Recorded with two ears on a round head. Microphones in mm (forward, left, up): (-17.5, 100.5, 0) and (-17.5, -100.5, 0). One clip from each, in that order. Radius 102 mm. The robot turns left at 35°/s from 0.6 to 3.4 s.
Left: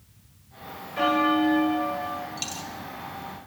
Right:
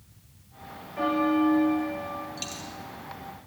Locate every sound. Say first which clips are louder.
1.0 s a bell: left 3 dB; 75° left, 1.7 m; by 2.3 s 30° left, 1.7 m
2.4 s a dropped coin: left 3 dB; 15° left (ahead or behind), 3 m; by 2.7 s 25° left (ahead or behind), 3 m